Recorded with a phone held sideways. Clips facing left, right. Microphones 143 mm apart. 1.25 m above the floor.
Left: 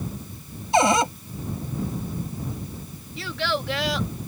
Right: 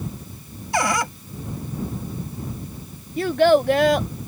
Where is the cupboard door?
25° left (ahead or behind).